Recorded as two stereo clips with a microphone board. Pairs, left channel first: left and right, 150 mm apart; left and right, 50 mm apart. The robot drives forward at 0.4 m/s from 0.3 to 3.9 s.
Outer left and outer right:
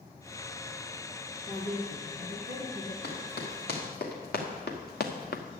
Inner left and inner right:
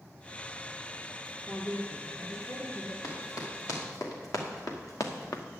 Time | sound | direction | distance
1.5 | a woman speaking | 60° left (ahead or behind) | 2.5 m
3.0 | running footsteps | 85° left | 4 m